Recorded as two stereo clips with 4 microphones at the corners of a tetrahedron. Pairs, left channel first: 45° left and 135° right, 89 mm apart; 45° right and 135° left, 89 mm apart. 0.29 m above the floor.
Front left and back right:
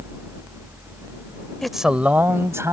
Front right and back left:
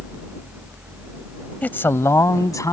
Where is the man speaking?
30° right; by 2.7 s 85° right.